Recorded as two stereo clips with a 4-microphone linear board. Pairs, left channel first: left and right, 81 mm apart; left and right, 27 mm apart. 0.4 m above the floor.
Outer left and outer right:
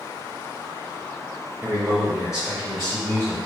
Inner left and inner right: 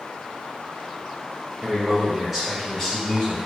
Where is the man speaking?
40° right (ahead or behind), 2.0 m; by 3.4 s 35° left (ahead or behind), 2.5 m.